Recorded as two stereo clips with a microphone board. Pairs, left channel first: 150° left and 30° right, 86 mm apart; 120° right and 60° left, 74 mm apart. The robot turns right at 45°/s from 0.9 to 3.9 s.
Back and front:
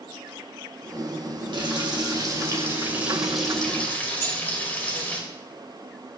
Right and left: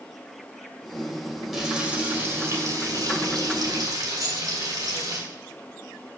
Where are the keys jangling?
90° left, 5.5 m.